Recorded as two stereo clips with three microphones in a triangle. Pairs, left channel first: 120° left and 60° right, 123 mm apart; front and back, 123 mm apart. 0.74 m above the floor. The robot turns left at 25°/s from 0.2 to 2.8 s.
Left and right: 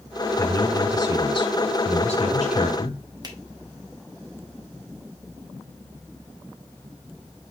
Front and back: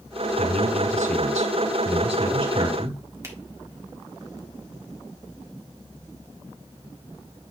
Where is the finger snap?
115° right, 1.7 m.